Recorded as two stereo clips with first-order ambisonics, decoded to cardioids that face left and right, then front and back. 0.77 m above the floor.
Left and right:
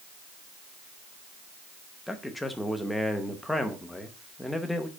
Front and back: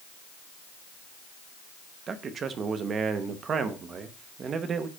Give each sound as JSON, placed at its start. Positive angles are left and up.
{"t": 2.1, "sound": "a man speaking", "azimuth_deg": 170, "distance_m": 0.8}